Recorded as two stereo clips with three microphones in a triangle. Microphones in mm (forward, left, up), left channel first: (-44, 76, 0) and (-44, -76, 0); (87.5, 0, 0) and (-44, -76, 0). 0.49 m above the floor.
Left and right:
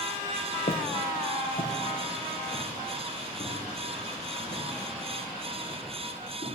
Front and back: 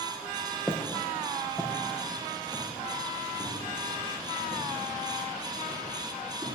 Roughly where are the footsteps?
Left.